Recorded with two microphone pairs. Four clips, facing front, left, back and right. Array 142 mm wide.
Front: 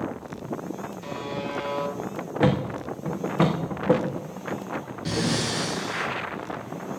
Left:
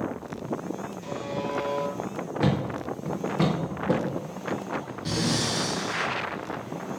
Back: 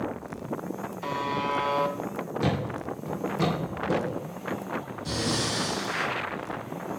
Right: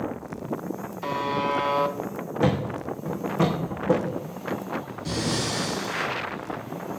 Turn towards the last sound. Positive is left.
turn(degrees=5)